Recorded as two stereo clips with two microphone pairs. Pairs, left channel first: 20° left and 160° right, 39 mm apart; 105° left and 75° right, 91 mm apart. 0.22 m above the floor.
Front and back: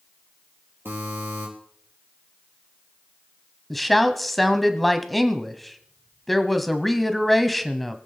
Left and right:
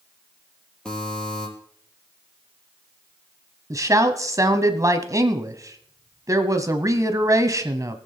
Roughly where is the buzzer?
Behind.